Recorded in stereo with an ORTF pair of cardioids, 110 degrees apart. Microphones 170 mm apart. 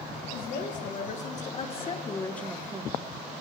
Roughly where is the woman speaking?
Ahead left.